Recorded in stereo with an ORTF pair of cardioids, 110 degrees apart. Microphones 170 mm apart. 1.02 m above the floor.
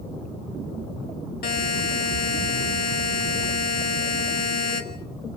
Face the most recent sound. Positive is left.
turn(degrees=60)